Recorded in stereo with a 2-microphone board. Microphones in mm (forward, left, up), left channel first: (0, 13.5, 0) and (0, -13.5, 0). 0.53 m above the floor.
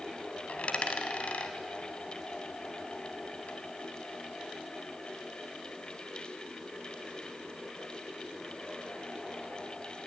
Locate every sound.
0.5 s a dropped coin: 50° left (ahead or behind), 1.8 m